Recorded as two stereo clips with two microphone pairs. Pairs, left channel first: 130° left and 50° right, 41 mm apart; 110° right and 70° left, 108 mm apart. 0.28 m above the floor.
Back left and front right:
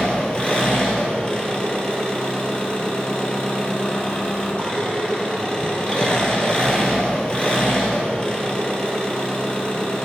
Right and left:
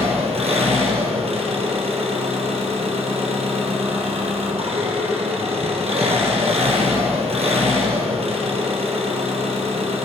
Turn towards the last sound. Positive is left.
turn(degrees=65)